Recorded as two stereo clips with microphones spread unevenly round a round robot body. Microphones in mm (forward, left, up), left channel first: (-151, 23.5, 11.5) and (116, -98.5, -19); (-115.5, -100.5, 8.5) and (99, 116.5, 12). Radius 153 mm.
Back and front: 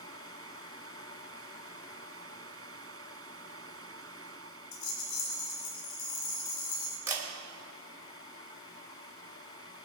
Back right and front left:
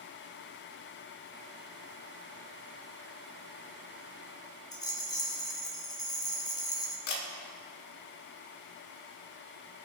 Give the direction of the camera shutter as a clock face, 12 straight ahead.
3 o'clock.